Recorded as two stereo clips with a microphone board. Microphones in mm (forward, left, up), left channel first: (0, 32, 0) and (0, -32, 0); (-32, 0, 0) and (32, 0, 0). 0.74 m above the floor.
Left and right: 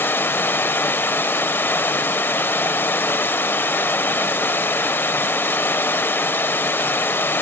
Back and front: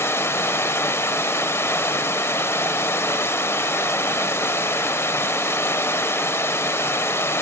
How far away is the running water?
About 0.7 m.